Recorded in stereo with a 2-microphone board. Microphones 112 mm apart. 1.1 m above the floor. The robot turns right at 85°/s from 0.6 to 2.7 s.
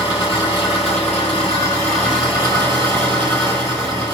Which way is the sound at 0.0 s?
45° left.